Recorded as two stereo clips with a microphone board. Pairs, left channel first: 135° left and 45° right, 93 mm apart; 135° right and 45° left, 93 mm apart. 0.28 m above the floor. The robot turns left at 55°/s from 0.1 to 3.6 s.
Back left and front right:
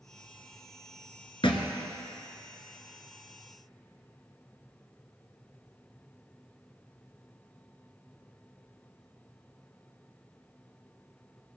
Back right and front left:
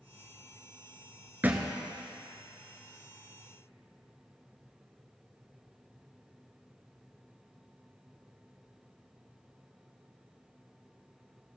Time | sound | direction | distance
1.4 | a thud | 115° left | 1.3 m